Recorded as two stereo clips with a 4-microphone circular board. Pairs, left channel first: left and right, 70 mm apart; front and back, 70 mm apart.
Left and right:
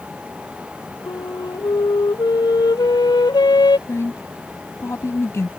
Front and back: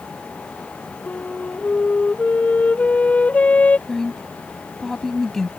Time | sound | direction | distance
1.1 | a flute | 70° left | ?
3.9 | a woman speaking | 80° left | ?